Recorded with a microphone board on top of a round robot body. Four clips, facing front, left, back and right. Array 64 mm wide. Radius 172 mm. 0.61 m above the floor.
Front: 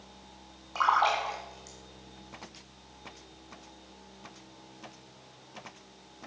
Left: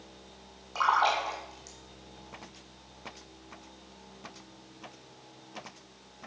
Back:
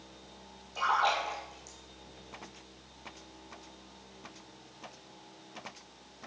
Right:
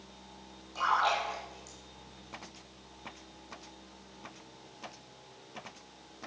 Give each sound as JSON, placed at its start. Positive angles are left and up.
{"t": 0.8, "sound": "a splash", "azimuth_deg": 25, "distance_m": 1.6}